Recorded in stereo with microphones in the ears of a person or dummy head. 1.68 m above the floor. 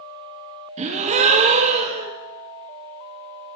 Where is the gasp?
35° right (ahead or behind), 1.0 m.